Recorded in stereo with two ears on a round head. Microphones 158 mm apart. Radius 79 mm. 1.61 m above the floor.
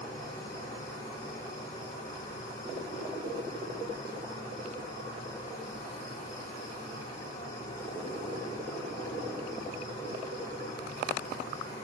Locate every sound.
0.0 s an insect: 20° left (ahead or behind), 5 m